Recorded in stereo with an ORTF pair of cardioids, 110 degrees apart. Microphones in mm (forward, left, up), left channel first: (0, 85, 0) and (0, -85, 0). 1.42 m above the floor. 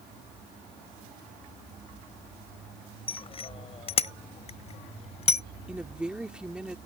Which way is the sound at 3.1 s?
35° left.